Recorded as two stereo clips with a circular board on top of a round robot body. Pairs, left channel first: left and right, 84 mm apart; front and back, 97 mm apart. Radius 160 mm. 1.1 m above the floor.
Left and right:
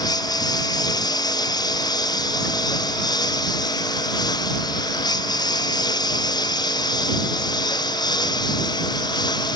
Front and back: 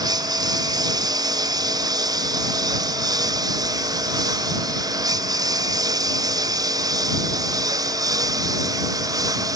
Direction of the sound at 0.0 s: 130° left.